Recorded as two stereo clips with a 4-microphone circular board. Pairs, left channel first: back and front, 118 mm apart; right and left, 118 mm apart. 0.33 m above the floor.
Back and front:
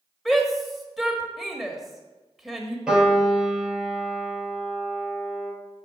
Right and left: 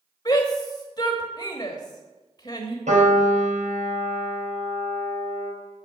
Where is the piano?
85° left, 4.5 m.